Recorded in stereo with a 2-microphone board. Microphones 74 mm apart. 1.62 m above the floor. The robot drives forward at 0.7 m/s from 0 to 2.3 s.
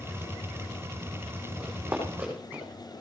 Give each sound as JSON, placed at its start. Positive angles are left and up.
{"t": 1.6, "sound": "running footsteps", "side_deg": -15, "distance_m": 5.5}